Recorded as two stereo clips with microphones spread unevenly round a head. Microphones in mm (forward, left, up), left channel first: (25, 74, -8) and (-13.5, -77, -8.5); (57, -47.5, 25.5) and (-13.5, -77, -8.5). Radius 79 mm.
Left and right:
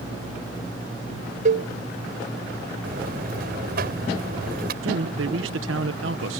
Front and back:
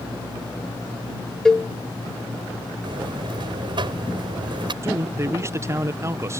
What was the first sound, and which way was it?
A cowbell, 60° right.